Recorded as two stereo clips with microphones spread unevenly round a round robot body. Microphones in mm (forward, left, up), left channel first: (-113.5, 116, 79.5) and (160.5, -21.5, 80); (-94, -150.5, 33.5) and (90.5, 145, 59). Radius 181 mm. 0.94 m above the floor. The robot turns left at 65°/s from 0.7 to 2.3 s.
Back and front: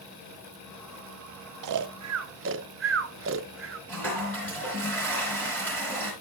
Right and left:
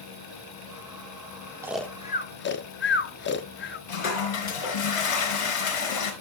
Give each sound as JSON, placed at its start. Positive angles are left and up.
{"t": 1.6, "sound": "snoring", "azimuth_deg": -25, "distance_m": 0.8}
{"t": 3.9, "sound": "a toilet flushing", "azimuth_deg": -120, "distance_m": 3.5}